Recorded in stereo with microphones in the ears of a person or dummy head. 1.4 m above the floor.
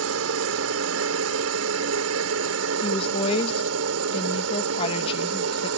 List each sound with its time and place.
0.0 s a helicopter: 75° right (ahead or behind)
2.8 s a woman speaking: 30° left (ahead or behind)